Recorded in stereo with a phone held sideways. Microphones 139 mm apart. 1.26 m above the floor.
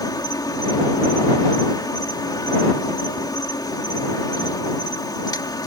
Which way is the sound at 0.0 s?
30° left (ahead or behind).